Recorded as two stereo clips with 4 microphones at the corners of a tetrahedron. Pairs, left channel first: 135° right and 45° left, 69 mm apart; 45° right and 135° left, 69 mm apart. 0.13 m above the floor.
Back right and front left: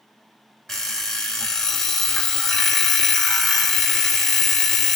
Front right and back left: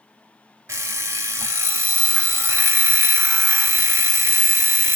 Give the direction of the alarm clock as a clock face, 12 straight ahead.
7 o'clock.